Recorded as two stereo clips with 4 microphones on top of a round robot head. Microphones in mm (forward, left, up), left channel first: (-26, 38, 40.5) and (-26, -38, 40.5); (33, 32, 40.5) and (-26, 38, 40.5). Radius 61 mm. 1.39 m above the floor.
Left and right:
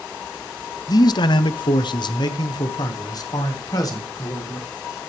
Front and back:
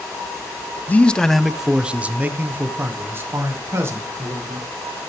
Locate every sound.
0.9 s a man speaking: 55° left, 0.5 m; by 5.0 s 130° left, 2 m